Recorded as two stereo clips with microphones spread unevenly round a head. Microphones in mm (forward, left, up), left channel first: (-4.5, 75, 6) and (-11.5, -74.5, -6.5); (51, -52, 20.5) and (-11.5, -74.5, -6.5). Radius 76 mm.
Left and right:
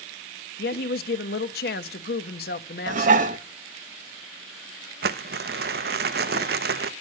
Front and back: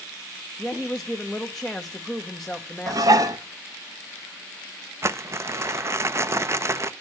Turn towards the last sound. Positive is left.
turn(degrees=-115)